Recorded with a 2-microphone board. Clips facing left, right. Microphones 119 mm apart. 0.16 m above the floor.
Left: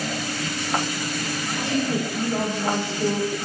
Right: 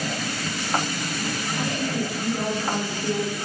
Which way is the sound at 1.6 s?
75° left (ahead or behind).